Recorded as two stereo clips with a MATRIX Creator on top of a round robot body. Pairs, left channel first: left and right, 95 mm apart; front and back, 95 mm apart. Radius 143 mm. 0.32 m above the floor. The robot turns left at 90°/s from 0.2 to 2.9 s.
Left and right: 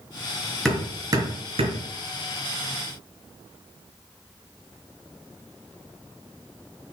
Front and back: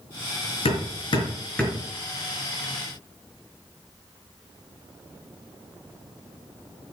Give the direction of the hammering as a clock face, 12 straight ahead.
12 o'clock.